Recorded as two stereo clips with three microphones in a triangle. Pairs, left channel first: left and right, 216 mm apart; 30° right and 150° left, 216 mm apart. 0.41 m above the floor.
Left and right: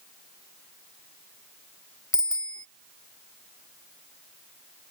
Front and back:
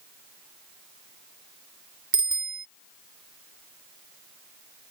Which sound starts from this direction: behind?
A bicycle bell, at 2.1 s.